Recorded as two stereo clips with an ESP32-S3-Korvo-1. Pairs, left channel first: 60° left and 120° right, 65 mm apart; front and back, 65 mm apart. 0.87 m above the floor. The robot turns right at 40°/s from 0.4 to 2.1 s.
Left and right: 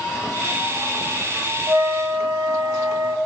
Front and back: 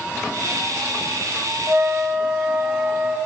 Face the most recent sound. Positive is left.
turn(degrees=-105)